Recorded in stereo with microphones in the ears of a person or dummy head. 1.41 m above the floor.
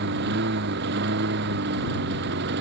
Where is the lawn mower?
55° right (ahead or behind).